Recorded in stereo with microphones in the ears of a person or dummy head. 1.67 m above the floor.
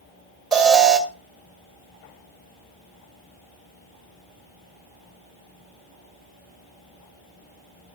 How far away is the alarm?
About 2 m.